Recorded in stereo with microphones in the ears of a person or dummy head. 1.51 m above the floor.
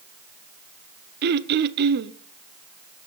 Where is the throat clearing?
60° right (ahead or behind), 0.7 m.